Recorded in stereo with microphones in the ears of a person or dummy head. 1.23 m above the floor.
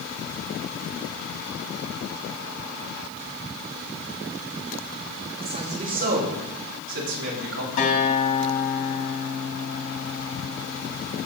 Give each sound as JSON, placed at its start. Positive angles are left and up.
{"t": 5.4, "sound": "a man speaking", "side_deg": -25, "distance_m": 2.5}
{"t": 7.8, "sound": "a guitar", "side_deg": 45, "distance_m": 2.0}